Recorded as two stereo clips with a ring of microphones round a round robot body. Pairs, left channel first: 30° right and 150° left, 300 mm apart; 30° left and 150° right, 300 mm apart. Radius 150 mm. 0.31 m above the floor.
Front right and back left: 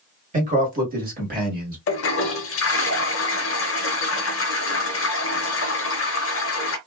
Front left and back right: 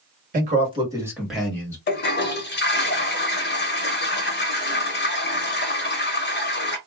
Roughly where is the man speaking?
Behind.